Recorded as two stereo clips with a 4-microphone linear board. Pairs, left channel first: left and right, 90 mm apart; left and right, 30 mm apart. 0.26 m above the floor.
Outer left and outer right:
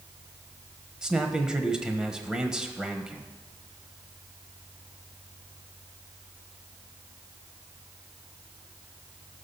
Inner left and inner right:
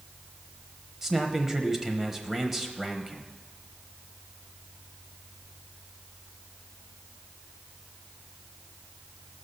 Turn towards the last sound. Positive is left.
turn(degrees=-10)  # may be behind; listen again after turning